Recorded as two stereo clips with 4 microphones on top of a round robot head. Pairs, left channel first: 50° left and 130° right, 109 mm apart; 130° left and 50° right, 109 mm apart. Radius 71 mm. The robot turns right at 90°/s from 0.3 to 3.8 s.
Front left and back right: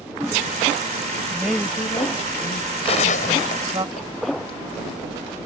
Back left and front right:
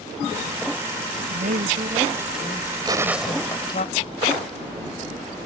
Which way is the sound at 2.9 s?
5° left.